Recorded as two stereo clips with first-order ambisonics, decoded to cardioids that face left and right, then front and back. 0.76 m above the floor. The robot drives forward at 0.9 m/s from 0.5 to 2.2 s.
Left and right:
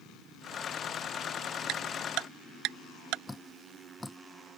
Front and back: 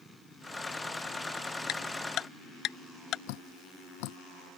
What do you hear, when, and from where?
1.7 s ticking: 50° right
3.3 s dripping: 5° left